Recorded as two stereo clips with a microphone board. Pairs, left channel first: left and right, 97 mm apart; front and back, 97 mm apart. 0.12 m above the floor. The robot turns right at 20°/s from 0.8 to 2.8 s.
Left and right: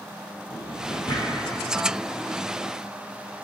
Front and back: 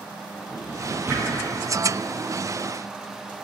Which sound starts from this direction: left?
A drawer, at 0.5 s.